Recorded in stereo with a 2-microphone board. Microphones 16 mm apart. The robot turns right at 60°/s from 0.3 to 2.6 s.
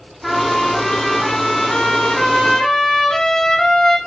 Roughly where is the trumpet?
Ahead.